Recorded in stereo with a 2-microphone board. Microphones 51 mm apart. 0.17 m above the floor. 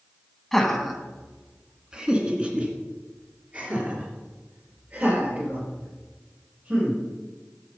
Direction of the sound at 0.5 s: 5° left (ahead or behind).